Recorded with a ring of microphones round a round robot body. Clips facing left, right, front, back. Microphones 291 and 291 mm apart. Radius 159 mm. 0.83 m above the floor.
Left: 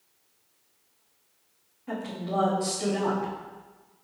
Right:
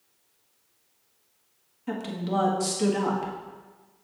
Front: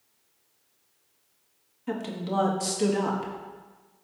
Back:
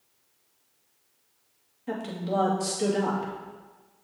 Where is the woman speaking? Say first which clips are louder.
Right 3 dB, even; 65° right, 1.6 m.